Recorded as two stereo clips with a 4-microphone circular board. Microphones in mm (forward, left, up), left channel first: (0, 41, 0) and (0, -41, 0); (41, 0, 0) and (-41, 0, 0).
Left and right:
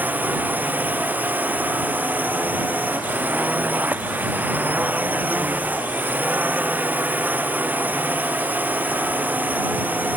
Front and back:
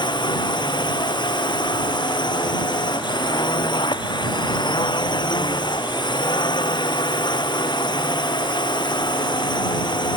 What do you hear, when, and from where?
0.0 s a drone: 20° right